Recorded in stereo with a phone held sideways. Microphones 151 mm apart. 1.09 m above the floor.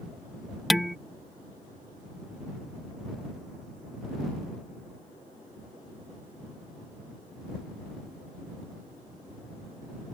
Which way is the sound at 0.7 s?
Centre (ahead or behind).